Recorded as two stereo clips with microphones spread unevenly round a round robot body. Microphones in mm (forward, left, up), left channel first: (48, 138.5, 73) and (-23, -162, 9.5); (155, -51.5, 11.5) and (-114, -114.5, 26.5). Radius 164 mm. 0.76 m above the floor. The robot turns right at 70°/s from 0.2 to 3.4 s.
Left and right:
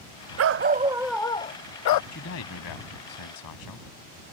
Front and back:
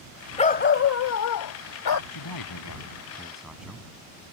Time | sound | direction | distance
0.4 | a dog barking | 55° right | ?
2.1 | a man speaking | 15° left | ?